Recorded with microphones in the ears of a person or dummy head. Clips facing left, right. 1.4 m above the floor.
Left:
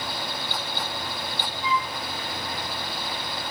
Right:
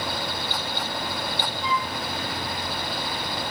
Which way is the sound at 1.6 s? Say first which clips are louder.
Left 2 dB; 45° right (ahead or behind).